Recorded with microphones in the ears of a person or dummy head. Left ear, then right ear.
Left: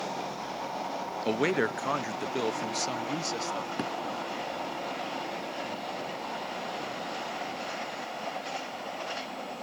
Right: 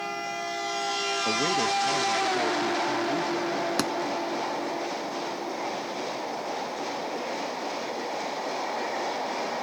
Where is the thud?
70° right (ahead or behind).